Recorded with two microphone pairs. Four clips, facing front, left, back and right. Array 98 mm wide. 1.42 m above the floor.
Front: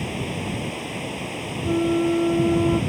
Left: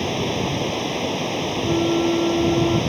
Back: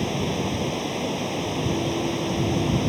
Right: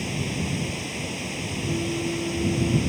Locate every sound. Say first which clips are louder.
0.0 s running water: left 7 dB, back 3 dB; 110° left
1.6 s a flute: left 9 dB, front 9 dB; 45° left